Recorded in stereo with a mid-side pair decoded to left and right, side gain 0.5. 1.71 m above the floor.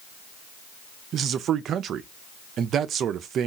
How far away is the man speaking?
About 0.6 m.